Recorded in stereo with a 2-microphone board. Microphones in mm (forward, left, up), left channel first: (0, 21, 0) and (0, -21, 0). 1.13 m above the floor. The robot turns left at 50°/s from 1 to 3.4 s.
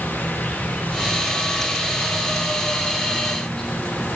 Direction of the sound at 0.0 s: 140° left.